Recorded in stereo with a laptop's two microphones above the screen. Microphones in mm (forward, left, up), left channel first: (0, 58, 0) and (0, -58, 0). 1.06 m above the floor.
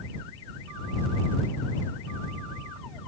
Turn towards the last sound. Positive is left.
No sound to turn to.